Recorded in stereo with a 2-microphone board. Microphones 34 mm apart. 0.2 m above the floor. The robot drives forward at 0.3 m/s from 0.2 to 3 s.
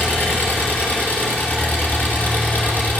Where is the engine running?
70° left (ahead or behind), 1.8 m; by 3.0 s 50° left (ahead or behind), 2 m.